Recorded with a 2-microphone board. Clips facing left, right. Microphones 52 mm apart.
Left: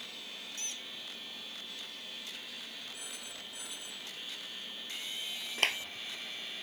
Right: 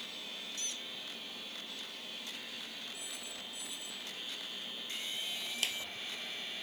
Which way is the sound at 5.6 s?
50° left (ahead or behind).